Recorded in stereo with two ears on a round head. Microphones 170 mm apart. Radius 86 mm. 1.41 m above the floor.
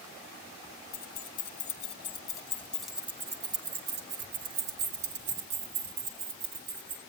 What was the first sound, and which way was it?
Keys jangling, 45° left (ahead or behind).